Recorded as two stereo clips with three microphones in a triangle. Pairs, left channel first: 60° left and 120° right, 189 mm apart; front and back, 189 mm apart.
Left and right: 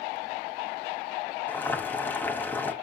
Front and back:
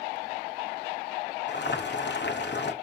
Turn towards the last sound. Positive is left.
turn(degrees=-20)